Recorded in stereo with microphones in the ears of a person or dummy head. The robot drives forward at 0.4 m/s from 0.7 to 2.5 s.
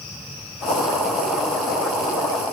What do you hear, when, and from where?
Only background noise.